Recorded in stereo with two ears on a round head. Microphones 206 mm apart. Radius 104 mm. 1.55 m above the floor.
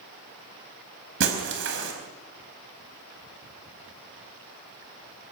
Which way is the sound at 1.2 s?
55° right (ahead or behind).